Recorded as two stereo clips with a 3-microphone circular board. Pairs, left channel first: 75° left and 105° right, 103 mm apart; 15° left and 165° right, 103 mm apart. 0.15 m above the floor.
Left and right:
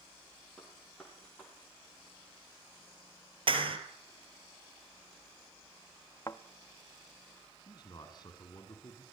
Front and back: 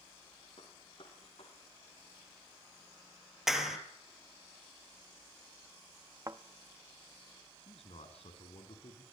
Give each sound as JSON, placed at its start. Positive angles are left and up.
{"t": 0.6, "sound": "a gunshot", "azimuth_deg": -10, "distance_m": 5.5}
{"t": 3.5, "sound": "a clap", "azimuth_deg": -80, "distance_m": 3.0}
{"t": 6.3, "sound": "a thud", "azimuth_deg": 135, "distance_m": 1.6}
{"t": 7.6, "sound": "a man speaking", "azimuth_deg": 25, "distance_m": 6.5}